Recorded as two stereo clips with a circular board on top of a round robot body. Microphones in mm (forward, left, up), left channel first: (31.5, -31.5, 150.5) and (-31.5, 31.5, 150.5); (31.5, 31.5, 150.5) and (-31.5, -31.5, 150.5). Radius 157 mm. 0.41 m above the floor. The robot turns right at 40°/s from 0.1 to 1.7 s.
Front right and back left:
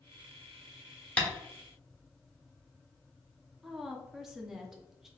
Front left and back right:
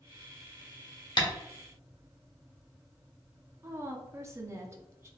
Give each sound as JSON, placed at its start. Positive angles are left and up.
{"t": 1.2, "sound": "tapping", "azimuth_deg": 30, "distance_m": 1.0}
{"t": 3.6, "sound": "a woman speaking", "azimuth_deg": -140, "distance_m": 0.8}